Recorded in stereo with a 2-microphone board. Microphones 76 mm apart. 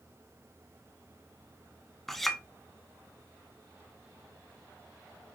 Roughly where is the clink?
Centre.